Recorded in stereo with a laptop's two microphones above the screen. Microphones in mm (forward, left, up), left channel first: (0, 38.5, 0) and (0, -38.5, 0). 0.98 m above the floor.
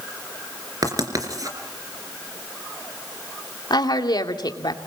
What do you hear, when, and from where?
0.8 s writing: 50° right (ahead or behind), 3 m
3.7 s a woman speaking: 65° left (ahead or behind), 2 m